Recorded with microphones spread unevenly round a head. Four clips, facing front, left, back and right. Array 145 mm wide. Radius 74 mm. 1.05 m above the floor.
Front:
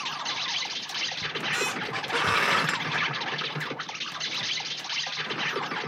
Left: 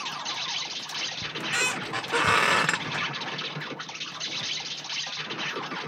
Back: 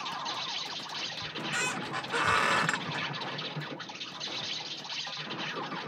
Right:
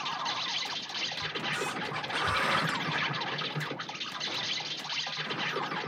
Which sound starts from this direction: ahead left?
A squeak, at 1.2 s.